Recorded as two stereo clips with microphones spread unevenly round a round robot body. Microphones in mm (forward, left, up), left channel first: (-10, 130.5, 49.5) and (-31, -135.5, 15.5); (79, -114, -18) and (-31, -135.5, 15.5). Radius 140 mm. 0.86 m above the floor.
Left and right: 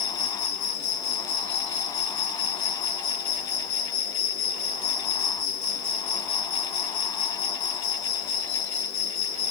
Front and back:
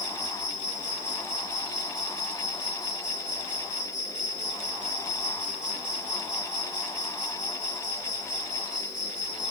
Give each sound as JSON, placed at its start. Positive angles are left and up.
{"t": 0.0, "sound": "an insect", "azimuth_deg": 95, "distance_m": 3.0}